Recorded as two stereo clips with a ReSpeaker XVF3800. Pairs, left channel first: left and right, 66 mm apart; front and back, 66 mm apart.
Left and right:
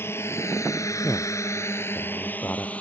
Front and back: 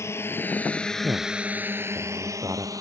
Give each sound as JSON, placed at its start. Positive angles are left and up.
{"t": 0.0, "sound": "a drone", "azimuth_deg": 40}
{"t": 1.0, "sound": "a man speaking", "azimuth_deg": 150}